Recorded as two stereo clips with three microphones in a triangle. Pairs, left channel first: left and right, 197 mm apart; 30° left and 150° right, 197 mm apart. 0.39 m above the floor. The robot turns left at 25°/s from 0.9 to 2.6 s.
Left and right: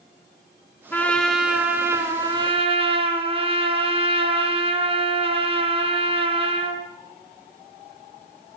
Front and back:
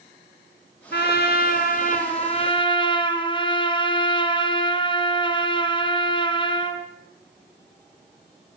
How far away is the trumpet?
About 3.5 m.